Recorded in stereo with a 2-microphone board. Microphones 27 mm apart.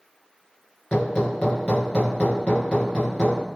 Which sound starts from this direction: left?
Hammering, at 0.9 s.